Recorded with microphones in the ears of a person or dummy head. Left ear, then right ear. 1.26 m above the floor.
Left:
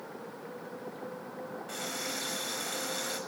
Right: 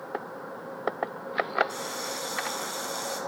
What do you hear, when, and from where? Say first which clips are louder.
1.7 s a running tap: right 3 dB; 30° left (ahead or behind), 5.5 m